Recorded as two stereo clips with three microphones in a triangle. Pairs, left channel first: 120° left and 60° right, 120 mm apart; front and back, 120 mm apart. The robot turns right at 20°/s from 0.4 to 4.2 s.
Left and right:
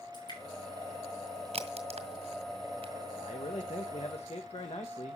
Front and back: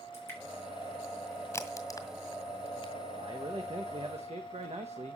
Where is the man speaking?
130° left, 1.2 m; by 5.2 s 155° left, 1.2 m.